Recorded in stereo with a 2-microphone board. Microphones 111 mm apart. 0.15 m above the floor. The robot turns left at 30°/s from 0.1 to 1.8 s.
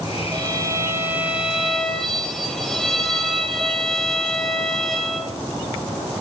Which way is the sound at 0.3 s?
140° right.